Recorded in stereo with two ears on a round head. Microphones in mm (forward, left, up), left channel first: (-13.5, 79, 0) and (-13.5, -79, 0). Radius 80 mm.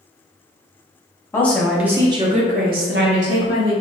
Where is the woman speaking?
10° left (ahead or behind), 0.7 m; by 3.7 s 80° right, 1.0 m.